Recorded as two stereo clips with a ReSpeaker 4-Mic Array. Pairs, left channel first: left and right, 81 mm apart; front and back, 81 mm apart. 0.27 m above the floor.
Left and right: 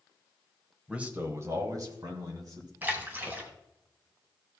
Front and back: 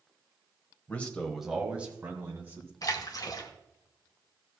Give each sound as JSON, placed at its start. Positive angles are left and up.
{"t": 0.9, "sound": "a man speaking", "azimuth_deg": -30, "distance_m": 1.4}
{"t": 2.8, "sound": "a splash", "azimuth_deg": -30, "distance_m": 1.5}